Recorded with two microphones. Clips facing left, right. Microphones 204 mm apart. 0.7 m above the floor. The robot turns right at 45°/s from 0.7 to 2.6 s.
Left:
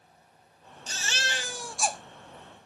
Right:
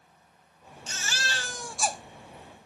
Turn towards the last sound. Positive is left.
turn(degrees=-145)